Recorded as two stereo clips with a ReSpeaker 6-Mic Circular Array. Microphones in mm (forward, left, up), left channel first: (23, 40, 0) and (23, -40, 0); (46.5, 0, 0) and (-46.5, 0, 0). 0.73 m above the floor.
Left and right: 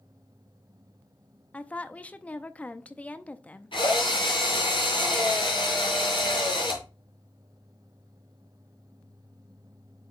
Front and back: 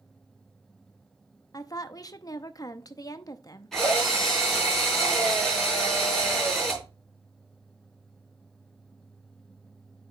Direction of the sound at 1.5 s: 25° left.